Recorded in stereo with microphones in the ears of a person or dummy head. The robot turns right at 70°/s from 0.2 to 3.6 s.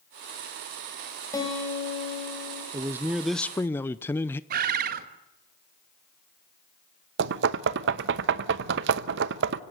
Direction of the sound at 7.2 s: 65° right (ahead or behind).